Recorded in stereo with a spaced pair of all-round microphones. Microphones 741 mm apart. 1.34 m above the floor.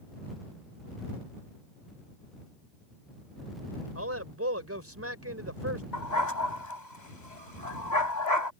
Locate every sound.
4.0 s a man speaking: 20° right (ahead or behind)
5.9 s a dog barking: 70° left (ahead or behind)